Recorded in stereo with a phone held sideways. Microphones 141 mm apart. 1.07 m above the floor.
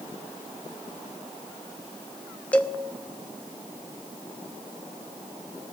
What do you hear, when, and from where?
2.5 s a cowbell: 10° left (ahead or behind), 0.7 m